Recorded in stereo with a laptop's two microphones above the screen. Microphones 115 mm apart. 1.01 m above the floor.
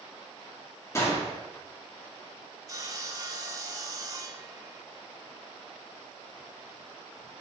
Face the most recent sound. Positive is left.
turn(degrees=-30)  # may be behind; listen again after turning